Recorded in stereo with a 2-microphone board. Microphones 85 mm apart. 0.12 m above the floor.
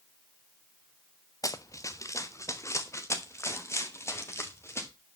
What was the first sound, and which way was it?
Running footsteps, 40° left (ahead or behind).